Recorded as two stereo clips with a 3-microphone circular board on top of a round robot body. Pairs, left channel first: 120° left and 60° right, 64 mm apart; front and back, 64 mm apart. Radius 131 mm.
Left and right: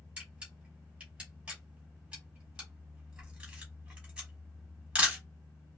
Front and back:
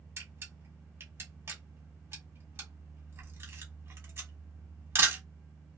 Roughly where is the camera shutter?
Behind right.